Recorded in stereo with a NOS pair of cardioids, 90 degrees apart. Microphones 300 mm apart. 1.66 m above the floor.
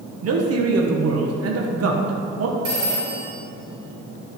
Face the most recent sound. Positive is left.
turn(degrees=-35)